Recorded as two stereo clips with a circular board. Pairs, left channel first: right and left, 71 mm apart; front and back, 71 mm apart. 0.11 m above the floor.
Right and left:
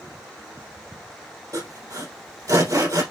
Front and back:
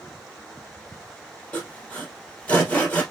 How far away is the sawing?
About 3 m.